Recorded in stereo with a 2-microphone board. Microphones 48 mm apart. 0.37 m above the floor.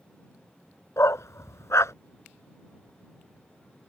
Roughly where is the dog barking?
Left.